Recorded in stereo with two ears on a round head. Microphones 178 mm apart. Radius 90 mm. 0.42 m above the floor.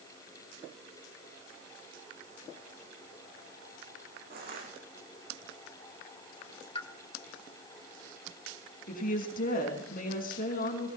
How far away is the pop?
About 1.3 m.